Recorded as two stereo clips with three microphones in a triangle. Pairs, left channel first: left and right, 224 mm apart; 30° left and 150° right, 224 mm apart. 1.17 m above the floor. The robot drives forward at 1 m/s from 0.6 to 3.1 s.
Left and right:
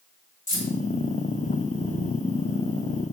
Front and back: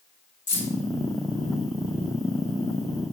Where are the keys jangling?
60° left, 1.8 m; by 0.7 s 65° left, 1.8 m.